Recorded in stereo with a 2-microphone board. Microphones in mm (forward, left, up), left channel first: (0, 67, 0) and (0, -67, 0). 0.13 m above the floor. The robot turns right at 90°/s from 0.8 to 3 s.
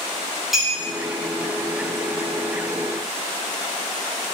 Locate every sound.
0.5 s a clink: centre (ahead or behind), 2.5 m